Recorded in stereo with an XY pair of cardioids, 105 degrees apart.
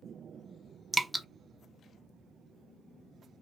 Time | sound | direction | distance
0.9 | dripping | 10° right | 0.5 m